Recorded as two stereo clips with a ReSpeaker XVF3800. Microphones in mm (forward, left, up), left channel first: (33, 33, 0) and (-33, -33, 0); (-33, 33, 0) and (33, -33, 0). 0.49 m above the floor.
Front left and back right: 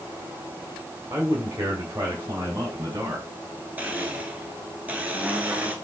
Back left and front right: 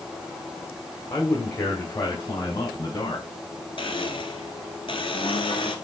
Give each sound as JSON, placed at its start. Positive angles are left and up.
{"t": 1.1, "sound": "a man speaking", "azimuth_deg": 170, "distance_m": 1.8}
{"t": 3.8, "sound": "a blender", "azimuth_deg": 150, "distance_m": 1.3}